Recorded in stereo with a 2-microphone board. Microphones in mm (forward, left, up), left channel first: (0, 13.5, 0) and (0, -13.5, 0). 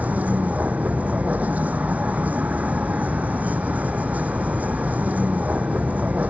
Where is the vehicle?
75° right (ahead or behind).